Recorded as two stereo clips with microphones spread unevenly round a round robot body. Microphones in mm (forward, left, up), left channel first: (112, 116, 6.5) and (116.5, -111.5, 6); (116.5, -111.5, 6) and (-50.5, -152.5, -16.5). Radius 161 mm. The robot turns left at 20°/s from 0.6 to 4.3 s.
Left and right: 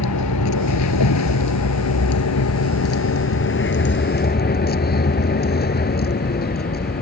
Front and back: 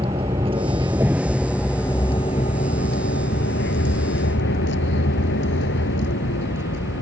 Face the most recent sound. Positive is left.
turn(degrees=45)